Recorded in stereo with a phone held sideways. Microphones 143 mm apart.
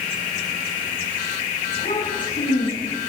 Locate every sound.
1.7 s a child speaking: 85° left, 7 m; by 3.1 s 75° left (ahead or behind), 5 m